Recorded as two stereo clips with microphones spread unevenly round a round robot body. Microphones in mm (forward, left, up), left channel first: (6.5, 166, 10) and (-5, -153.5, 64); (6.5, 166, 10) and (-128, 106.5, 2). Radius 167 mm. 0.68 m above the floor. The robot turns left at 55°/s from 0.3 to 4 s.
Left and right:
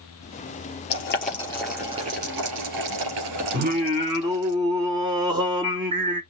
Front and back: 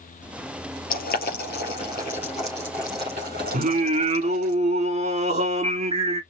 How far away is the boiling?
About 3 m.